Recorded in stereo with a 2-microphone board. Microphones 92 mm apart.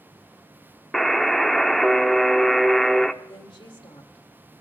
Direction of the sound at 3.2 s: 65° left (ahead or behind).